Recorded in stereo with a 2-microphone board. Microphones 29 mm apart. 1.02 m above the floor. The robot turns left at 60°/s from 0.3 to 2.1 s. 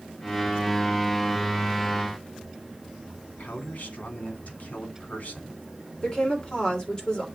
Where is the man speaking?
60° left (ahead or behind), 2.5 m.